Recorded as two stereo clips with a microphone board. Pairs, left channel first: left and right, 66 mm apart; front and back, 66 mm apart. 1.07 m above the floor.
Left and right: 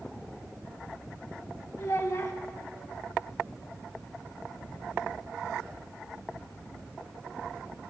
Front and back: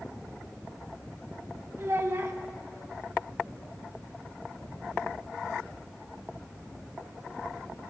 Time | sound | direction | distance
1.8 | a child speaking | 130° left | 0.9 m